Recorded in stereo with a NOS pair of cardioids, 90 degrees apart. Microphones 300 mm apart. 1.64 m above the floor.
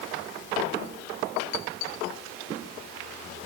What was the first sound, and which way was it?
Only background noise.